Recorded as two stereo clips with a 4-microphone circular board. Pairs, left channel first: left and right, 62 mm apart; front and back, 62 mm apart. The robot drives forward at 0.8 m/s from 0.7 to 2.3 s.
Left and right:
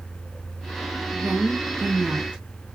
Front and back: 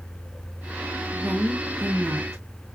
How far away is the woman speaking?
About 1.5 m.